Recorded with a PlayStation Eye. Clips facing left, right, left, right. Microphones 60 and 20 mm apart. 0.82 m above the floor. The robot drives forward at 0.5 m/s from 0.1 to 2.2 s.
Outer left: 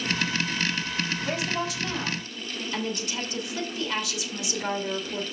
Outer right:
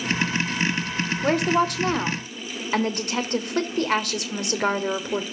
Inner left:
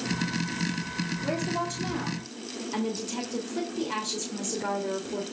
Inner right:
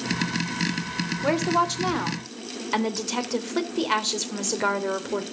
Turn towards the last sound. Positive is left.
turn(degrees=-50)  # may be behind; listen again after turning